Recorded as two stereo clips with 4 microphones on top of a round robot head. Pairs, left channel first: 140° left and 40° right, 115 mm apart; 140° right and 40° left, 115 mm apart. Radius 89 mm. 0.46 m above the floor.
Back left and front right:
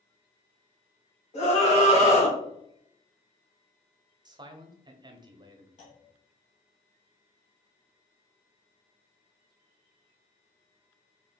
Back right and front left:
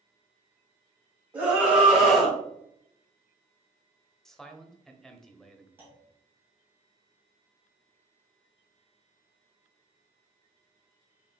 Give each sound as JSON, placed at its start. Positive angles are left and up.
{"t": 1.3, "sound": "a scream", "azimuth_deg": 115, "distance_m": 2.5}
{"t": 4.2, "sound": "a man speaking", "azimuth_deg": -55, "distance_m": 0.9}
{"t": 5.8, "sound": "a clunk", "azimuth_deg": 110, "distance_m": 2.5}